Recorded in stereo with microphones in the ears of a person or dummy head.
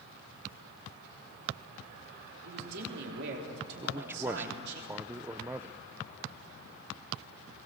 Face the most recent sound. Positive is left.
turn(degrees=-10)  # may be behind; listen again after turning